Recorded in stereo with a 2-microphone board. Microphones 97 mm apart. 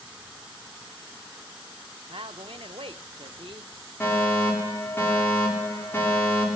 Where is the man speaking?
65° right (ahead or behind), 0.7 m.